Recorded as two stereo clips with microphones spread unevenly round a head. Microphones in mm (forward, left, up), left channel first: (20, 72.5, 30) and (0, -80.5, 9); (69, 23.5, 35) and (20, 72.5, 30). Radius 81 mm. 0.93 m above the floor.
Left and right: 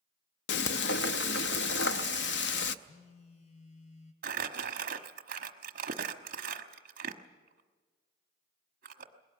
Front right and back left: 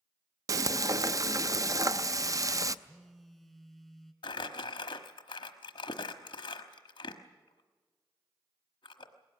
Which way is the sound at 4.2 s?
65° right.